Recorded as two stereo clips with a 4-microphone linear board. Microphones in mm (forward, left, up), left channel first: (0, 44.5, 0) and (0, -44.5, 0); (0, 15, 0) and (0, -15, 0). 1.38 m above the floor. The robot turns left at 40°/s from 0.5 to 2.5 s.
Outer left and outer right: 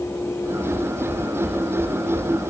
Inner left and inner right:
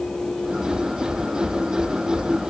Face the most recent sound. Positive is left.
No sound to turn to.